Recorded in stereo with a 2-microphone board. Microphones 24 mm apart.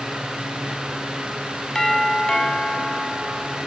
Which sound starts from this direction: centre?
A doorbell, at 1.8 s.